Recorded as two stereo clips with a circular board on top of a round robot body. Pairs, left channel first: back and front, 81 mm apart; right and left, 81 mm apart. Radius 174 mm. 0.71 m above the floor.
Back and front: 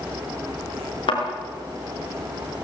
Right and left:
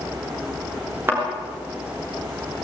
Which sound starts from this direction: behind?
A thud, at 1.1 s.